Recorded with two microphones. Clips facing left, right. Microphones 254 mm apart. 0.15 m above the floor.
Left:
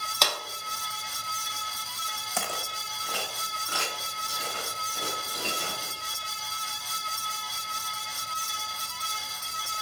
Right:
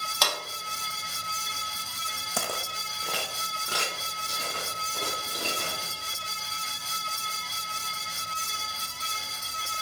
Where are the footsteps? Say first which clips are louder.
Right 1 dB; 35° right (ahead or behind), 0.6 m; by 6.0 s 75° right (ahead or behind), 4 m.